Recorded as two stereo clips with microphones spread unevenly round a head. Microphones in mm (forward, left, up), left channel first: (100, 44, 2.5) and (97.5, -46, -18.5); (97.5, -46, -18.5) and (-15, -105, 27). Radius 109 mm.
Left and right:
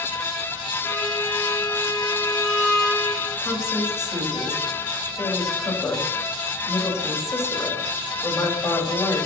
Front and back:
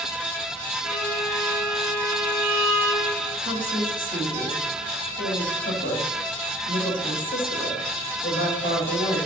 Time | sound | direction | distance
0.8 | a violin | 5° left | 6 m
3.4 | a woman speaking | 30° left | 5.5 m